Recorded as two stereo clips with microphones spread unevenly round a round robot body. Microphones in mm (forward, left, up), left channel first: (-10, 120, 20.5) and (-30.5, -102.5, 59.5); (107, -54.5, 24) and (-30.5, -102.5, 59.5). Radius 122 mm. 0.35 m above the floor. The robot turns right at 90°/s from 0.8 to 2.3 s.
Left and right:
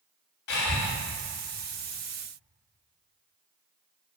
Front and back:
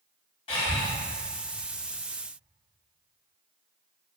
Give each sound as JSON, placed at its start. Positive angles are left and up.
{"t": 0.5, "sound": "breathing", "azimuth_deg": 60, "distance_m": 2.5}